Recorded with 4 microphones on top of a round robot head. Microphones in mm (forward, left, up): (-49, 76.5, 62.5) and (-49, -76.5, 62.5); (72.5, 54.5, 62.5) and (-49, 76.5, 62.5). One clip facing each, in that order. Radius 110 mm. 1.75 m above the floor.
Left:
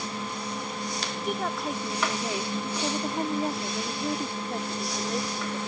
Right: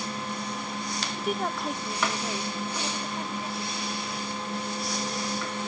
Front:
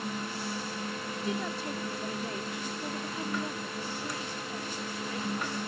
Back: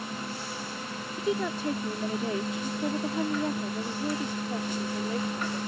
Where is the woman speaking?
175° right; by 5.6 s 110° left.